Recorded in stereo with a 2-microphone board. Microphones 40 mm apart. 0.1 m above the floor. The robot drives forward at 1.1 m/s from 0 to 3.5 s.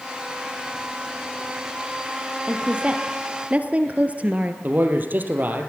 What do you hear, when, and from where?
2.5 s a woman speaking: 25° right (ahead or behind), 2.5 m; by 4.5 s 35° right (ahead or behind), 1.7 m
4.6 s a man speaking: 45° right (ahead or behind), 3 m